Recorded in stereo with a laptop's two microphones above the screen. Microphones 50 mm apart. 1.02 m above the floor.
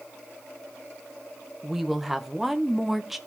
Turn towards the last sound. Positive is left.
turn(degrees=-5)  # may be behind; listen again after turning